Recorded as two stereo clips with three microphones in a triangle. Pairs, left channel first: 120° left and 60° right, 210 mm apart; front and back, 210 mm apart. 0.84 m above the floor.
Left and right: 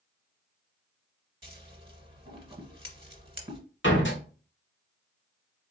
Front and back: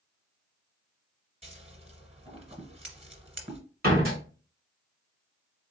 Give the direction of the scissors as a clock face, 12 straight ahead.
4 o'clock.